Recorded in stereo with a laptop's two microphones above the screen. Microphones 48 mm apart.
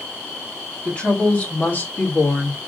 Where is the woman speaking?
25° left (ahead or behind), 1.8 m; by 2.7 s 60° left (ahead or behind), 1.1 m.